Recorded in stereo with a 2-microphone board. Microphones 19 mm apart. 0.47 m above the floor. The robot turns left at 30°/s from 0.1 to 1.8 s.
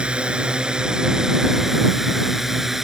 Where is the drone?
115° right; by 2.9 s 165° right.